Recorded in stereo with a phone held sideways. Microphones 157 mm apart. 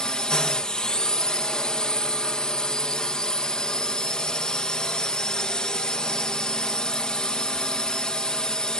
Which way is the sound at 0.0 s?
5° left (ahead or behind).